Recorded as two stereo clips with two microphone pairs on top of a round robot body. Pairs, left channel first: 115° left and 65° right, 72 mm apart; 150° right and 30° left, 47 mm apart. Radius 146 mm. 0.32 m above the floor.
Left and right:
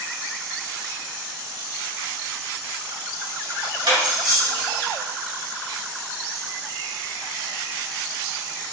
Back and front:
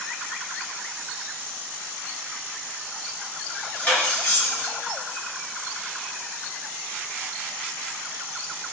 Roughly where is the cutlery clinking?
Right.